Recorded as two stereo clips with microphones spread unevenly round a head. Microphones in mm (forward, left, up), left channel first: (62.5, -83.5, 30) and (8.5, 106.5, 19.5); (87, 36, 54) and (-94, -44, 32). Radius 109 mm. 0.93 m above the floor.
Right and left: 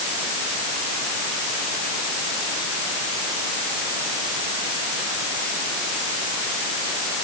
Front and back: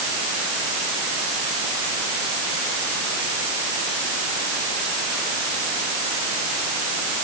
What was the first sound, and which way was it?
Only background noise.